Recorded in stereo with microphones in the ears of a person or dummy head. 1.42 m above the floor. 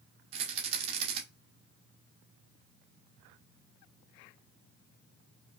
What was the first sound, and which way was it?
A rattle, 25° right (ahead or behind).